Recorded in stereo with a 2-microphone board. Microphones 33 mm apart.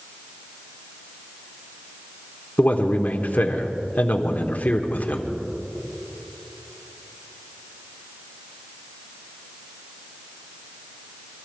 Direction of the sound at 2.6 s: 55° left (ahead or behind).